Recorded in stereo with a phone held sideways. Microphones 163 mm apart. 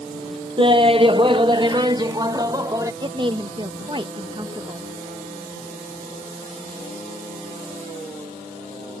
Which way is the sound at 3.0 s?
30° right (ahead or behind).